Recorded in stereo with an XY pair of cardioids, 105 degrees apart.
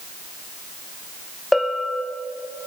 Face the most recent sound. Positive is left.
turn(degrees=10)